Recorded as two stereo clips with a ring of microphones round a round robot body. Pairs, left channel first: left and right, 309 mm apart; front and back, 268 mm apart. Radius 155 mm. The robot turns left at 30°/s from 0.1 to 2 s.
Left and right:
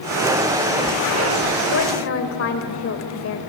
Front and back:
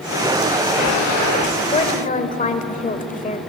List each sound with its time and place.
1.7 s a woman speaking: 65° left, 1.5 m; by 3.4 s 55° left, 1.5 m